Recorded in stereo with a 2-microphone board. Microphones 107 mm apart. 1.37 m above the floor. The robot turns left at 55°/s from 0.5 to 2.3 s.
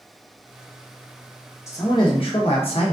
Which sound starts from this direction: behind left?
A man speaking, at 1.7 s.